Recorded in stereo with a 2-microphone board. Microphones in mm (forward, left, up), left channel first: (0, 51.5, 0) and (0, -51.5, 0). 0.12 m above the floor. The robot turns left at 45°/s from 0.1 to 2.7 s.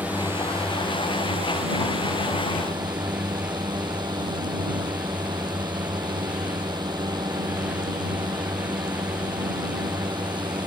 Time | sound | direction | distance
0.0 | a drone | 15° right | ?